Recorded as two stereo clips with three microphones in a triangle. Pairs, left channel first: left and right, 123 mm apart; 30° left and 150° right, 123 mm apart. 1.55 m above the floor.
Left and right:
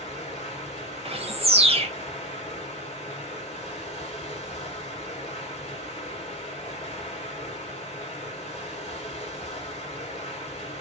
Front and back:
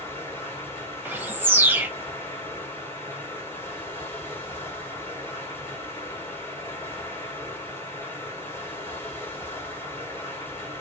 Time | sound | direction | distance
0.0 | running water | 100° left | 2 m
1.1 | a bird | 80° right | 1.0 m